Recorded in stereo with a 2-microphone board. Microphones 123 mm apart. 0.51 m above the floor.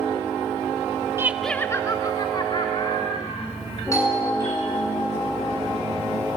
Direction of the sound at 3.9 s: 25° left (ahead or behind).